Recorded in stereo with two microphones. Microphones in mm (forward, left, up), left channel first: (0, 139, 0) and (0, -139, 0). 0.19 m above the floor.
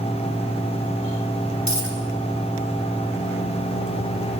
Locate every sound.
1.7 s a dropped coin: 80° left, 4 m